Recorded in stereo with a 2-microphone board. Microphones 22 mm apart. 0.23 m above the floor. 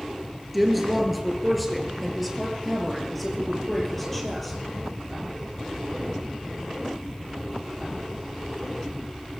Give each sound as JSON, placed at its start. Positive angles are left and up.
{"t": 0.5, "sound": "a woman speaking", "side_deg": -5, "distance_m": 4.5}